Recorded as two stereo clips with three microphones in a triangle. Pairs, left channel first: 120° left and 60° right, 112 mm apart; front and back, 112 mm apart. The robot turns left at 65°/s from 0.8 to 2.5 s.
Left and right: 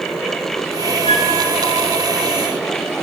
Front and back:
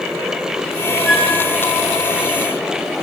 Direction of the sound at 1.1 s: 95° left.